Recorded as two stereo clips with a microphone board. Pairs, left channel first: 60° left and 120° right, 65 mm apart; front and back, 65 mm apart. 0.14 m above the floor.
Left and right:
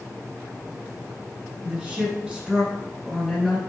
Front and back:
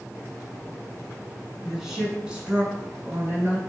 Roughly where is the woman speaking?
Right.